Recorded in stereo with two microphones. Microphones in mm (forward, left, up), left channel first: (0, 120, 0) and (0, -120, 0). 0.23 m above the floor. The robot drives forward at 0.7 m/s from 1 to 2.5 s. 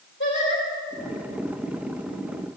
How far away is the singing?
About 8 m.